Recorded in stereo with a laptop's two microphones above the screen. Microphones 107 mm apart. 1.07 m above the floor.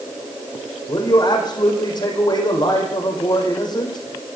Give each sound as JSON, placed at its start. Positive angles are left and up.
{"t": 0.9, "sound": "a man speaking", "side_deg": 45, "distance_m": 6.0}